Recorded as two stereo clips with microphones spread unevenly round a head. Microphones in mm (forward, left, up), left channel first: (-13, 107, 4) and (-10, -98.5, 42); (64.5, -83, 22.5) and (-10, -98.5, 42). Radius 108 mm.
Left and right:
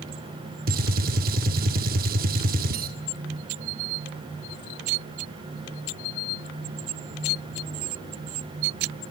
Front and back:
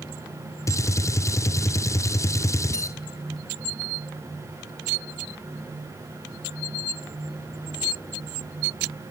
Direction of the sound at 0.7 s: 40° right.